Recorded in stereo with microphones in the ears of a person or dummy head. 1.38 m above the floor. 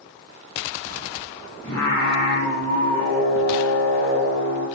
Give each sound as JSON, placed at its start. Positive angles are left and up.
{"t": 1.6, "sound": "singing", "side_deg": 20, "distance_m": 0.8}